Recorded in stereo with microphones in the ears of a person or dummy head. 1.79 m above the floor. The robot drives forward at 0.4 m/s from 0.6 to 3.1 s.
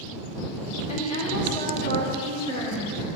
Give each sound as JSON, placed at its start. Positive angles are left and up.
{"t": 0.9, "sound": "a woman speaking", "side_deg": 40, "distance_m": 2.5}